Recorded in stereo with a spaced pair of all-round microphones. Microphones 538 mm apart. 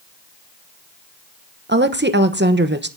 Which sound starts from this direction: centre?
A woman speaking, at 1.7 s.